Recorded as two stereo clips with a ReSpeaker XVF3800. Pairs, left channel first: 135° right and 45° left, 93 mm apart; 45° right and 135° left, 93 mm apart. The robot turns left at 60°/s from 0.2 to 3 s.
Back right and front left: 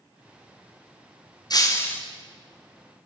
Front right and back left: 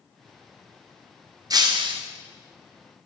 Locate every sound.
1.5 s breaking glass: straight behind, 5.5 m; by 2.0 s 150° left, 5.5 m